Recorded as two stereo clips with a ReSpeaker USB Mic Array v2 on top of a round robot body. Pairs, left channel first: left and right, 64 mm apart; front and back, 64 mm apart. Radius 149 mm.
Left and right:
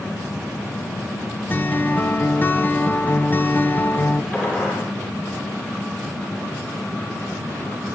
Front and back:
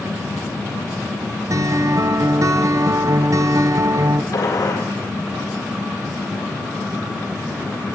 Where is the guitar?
150° left, 0.7 m.